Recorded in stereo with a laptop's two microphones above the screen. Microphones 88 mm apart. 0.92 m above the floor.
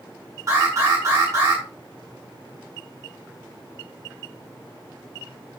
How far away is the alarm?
About 6 m.